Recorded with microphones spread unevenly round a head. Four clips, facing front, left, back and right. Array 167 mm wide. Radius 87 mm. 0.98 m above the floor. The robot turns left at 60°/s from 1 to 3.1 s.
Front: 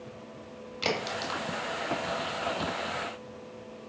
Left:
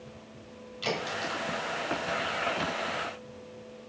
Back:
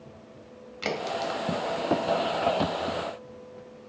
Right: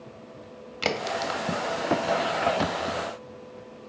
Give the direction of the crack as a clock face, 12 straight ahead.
3 o'clock.